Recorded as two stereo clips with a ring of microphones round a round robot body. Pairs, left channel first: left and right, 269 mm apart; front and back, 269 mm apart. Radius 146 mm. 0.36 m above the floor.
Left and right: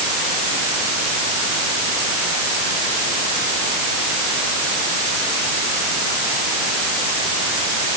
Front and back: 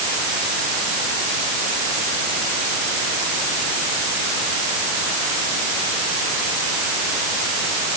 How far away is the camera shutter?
No camera shutter in this recording.